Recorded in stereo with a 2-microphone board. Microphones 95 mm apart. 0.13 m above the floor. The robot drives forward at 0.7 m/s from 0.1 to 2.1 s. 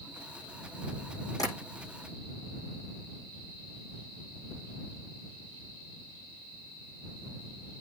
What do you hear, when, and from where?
1.4 s tapping: 40° left (ahead or behind), 6.5 m